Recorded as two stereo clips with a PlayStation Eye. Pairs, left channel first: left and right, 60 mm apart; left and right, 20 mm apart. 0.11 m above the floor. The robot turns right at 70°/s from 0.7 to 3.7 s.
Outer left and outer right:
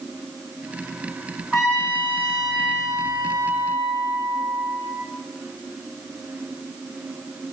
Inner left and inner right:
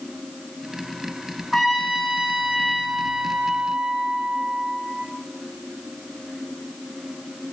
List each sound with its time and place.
1.5 s a trumpet: 175° left, 3.5 m; by 5.0 s 30° right, 3.5 m